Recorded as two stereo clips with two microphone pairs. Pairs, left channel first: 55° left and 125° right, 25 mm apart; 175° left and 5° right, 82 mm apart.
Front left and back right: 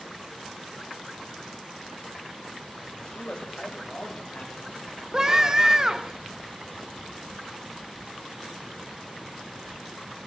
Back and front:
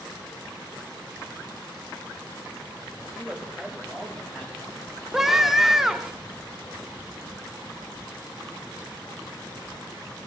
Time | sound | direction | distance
3.0 | a man speaking | 50° left | 1.9 m
5.1 | a scream | 95° right | 0.8 m